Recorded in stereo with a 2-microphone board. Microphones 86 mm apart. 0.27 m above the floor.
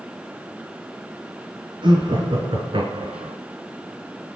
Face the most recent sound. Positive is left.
turn(degrees=-70)  # may be behind; listen again after turning